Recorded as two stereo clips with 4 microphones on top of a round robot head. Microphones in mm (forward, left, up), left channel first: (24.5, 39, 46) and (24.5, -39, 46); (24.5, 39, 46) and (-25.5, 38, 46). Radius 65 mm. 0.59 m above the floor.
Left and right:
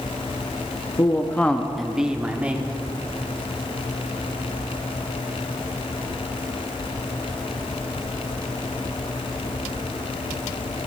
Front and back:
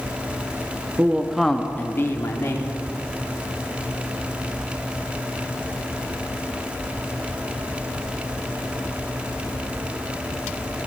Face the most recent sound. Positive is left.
turn(degrees=-20)